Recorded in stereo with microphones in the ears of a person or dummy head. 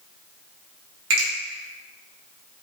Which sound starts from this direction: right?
A finger snap, at 1.1 s.